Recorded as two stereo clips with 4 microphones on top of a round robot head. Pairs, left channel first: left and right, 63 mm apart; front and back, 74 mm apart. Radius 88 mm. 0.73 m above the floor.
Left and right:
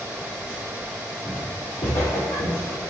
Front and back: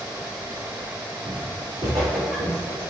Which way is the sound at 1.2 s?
140° left.